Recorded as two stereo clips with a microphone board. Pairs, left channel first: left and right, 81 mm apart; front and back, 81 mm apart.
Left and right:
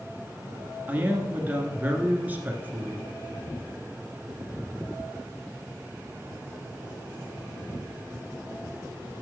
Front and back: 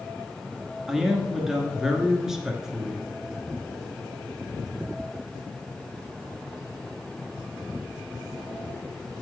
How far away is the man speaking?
About 1.5 m.